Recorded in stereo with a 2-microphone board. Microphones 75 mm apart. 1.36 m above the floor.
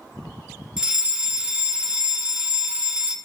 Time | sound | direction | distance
0.8 | a fire alarm | 10° right (ahead or behind) | 0.8 m